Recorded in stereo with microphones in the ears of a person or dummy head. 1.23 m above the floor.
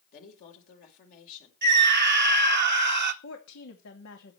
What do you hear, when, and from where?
0.1 s a woman speaking: 45° left (ahead or behind), 4.5 m
1.6 s a scream: 50° right (ahead or behind), 1.8 m
3.2 s a woman speaking: 65° left (ahead or behind), 2.5 m